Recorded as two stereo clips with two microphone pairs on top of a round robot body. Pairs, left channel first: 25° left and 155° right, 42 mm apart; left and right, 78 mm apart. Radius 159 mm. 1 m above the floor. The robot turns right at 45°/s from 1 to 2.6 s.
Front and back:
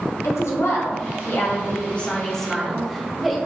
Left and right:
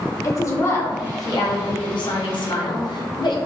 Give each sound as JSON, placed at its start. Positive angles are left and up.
{"t": 0.2, "sound": "a woman speaking", "azimuth_deg": 40, "distance_m": 0.7}